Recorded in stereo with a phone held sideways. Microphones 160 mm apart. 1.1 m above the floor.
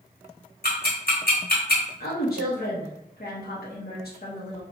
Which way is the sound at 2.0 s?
80° left.